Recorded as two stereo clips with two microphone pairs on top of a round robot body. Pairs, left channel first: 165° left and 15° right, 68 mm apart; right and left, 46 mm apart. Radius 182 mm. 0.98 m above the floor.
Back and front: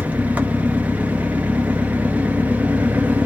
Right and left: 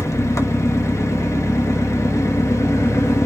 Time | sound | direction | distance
0.0 | an engine running | 85° right | 0.8 m